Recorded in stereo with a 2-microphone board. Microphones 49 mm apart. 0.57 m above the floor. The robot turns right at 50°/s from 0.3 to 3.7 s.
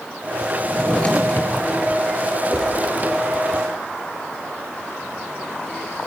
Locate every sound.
0.6 s a drawer: 5° left, 3.5 m; by 1.6 s 55° left, 3.5 m
2.5 s a whoosh: 10° right (ahead or behind), 3 m; by 2.7 s centre (ahead or behind), 3 m